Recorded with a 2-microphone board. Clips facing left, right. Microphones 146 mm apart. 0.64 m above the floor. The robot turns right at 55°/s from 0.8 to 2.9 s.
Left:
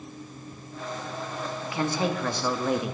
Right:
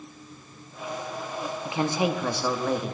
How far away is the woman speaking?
About 0.7 m.